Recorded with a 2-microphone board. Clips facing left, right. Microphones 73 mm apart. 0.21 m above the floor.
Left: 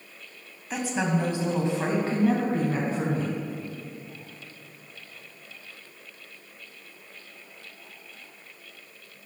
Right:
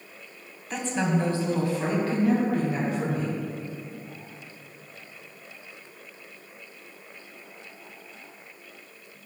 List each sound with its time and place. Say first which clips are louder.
0.7 s a woman speaking: even; 5° left (ahead or behind), 1.1 m; by 3.4 s 35° left (ahead or behind), 1.9 m